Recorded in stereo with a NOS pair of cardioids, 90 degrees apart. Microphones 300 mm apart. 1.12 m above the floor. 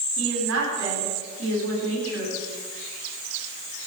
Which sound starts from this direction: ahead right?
A woman speaking, at 0.2 s.